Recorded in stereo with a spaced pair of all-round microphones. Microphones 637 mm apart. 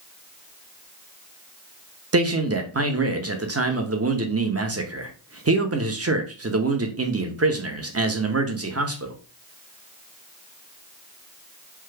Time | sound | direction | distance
2.1 | a man speaking | 25° right (ahead or behind) | 0.6 m